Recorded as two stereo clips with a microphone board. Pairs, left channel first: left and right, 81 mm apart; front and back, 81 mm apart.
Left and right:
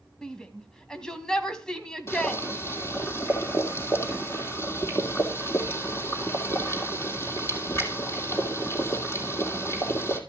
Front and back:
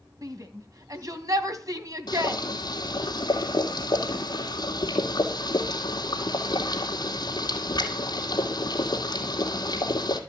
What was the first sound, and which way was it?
A shout, 170° left.